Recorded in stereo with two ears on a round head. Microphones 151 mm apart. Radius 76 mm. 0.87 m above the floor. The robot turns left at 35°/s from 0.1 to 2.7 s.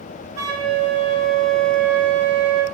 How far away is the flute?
About 1.2 m.